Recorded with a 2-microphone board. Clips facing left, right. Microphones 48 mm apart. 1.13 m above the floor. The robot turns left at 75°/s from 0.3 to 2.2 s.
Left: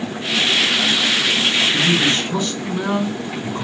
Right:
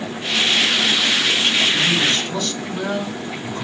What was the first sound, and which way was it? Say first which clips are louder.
A man speaking: left 1 dB; 50° left.